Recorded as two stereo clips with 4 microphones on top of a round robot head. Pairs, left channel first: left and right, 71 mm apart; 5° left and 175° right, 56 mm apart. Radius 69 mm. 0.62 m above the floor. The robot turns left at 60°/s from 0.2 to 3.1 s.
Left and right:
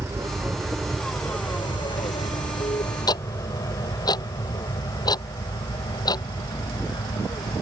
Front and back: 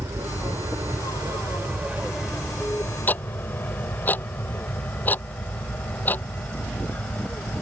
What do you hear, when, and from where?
0.0 s an aircraft: 150° right; by 7.6 s 70° left
3.1 s ticking: 65° left; by 6.2 s 60° left